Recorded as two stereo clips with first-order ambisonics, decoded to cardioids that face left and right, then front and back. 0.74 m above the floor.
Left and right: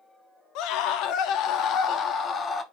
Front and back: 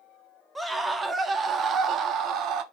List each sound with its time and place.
0.6 s a scream: 100° left, 1.3 m; by 2.6 s 155° left, 1.3 m